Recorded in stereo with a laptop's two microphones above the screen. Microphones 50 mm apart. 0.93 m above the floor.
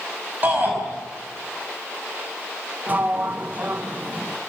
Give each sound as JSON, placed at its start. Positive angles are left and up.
{"t": 0.4, "sound": "a shout", "side_deg": -35, "distance_m": 5.5}
{"t": 2.9, "sound": "a sliding door", "side_deg": -30, "distance_m": 0.7}